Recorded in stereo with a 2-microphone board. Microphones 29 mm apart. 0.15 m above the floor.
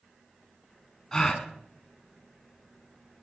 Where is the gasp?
25° left (ahead or behind), 0.9 m.